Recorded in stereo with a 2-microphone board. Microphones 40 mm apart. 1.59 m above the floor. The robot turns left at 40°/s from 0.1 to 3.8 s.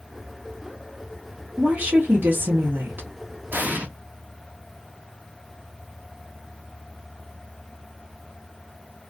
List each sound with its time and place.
1.6 s a woman speaking: 45° right, 0.7 m; by 3.1 s 105° right, 0.7 m
3.5 s an explosion: 50° right (ahead or behind), 0.6 m; by 3.9 s 40° right (ahead or behind), 0.6 m